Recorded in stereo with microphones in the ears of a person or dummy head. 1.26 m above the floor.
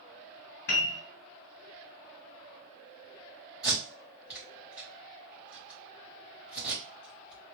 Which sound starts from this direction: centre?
Tape being pulled, at 3.6 s.